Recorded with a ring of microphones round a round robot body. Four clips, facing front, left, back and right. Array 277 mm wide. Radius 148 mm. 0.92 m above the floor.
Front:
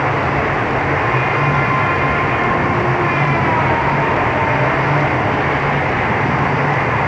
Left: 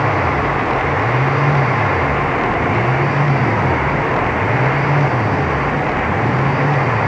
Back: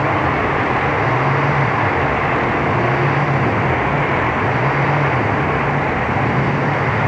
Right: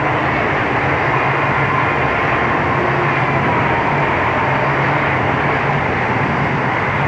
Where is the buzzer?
I don't hear a buzzer.